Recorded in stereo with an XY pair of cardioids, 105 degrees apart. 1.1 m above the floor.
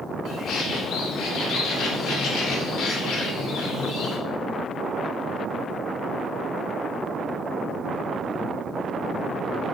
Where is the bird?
70° left, 3.5 m.